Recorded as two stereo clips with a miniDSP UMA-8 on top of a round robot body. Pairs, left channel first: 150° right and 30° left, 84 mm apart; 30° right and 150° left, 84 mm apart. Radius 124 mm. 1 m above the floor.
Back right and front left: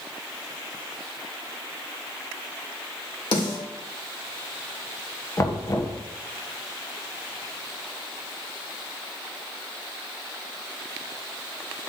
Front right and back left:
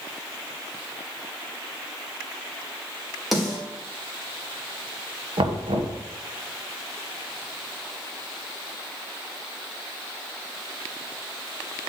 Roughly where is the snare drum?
Behind right.